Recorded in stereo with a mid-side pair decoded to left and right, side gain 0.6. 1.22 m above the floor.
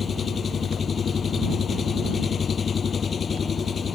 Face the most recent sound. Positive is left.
turn(degrees=35)